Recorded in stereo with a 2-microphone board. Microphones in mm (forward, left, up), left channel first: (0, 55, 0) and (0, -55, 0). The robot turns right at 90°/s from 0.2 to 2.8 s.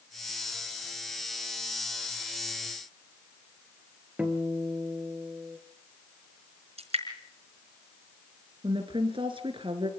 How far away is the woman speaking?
About 4 m.